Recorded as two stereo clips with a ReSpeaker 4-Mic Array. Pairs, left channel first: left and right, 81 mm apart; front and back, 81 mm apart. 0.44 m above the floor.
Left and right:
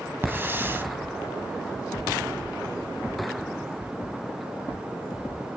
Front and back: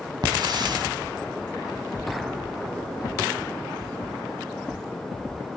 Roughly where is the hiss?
Behind right.